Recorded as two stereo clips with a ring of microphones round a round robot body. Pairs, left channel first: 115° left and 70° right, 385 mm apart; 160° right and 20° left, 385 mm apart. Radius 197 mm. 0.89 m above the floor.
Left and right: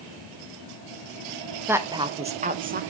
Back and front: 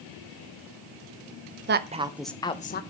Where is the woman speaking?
10° left, 0.7 m; by 2.8 s 115° right, 0.7 m.